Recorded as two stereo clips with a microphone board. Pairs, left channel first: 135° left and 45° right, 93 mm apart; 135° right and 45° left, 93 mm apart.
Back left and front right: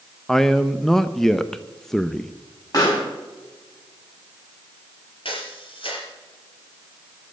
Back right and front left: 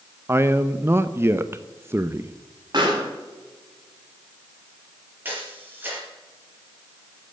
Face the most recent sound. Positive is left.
turn(degrees=115)